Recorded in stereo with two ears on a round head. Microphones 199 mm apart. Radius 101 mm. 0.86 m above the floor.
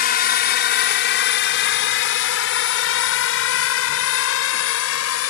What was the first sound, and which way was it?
A drone, 45° left (ahead or behind).